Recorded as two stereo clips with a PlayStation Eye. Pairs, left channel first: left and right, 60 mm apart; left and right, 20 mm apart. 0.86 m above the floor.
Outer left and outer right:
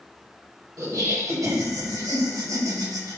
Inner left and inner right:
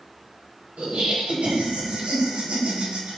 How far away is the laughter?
About 4.5 m.